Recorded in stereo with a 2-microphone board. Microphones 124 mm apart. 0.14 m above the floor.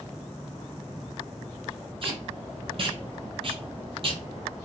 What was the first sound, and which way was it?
Tape being pulled, 45° right (ahead or behind).